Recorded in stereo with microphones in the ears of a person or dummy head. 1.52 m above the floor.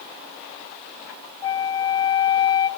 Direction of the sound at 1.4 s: 20° left (ahead or behind).